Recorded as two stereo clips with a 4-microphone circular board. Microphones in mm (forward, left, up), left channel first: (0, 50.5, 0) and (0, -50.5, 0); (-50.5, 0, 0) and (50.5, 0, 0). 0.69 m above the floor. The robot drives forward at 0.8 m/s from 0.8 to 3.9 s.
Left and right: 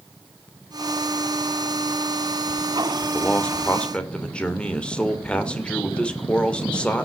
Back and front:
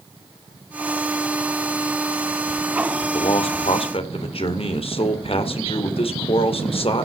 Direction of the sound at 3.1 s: 165° left.